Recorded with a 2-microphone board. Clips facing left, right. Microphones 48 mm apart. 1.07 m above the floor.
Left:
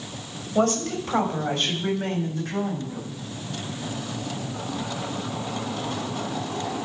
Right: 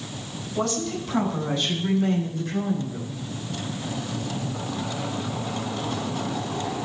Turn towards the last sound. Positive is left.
turn(degrees=80)